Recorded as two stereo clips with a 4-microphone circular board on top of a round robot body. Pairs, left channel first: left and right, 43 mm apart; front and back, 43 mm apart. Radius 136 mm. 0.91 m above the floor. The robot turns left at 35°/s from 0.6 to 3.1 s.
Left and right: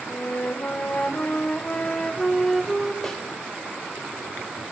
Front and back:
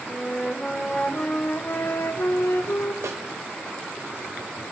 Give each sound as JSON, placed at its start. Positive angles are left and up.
{"t": 0.1, "sound": "a flute", "azimuth_deg": 70, "distance_m": 0.6}
{"t": 3.0, "sound": "a snare drum", "azimuth_deg": 170, "distance_m": 0.7}